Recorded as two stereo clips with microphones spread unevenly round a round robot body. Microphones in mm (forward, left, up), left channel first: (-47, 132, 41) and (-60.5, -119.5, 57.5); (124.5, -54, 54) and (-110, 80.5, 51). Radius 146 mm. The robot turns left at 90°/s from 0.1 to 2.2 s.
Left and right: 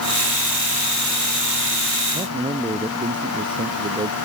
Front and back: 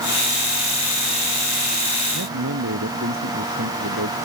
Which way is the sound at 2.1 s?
155° right.